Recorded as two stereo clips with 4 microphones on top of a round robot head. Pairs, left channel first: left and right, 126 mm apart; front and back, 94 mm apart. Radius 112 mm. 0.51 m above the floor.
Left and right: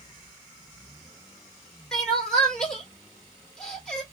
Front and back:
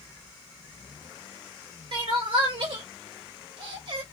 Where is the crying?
175° left, 1.8 m.